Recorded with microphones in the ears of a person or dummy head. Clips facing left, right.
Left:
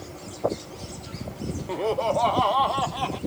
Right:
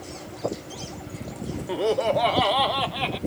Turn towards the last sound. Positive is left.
turn(degrees=-30)  # may be behind; listen again after turning